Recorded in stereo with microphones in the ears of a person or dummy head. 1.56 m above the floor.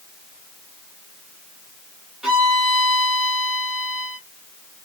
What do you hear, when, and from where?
2.2 s a violin: centre (ahead or behind), 1.1 m